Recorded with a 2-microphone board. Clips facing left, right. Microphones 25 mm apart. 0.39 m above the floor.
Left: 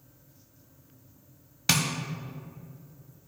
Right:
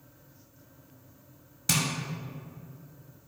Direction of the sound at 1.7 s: 40° left (ahead or behind).